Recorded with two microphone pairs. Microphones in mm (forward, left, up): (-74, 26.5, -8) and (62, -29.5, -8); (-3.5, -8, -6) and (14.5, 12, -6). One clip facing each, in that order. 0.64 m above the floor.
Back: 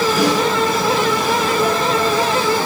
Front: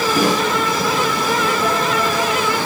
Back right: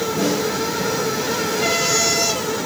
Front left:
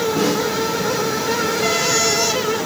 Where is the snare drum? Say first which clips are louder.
Front 2 dB, even; 20° left, 7.5 m.